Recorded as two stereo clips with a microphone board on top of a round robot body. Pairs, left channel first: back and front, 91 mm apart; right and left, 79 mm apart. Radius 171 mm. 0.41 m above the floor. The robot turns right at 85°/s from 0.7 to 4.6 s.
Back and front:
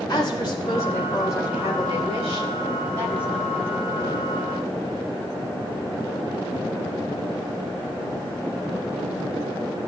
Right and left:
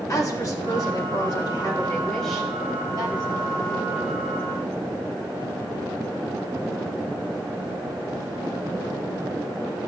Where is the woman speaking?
140° right, 4 m; by 3.5 s 100° left, 4 m.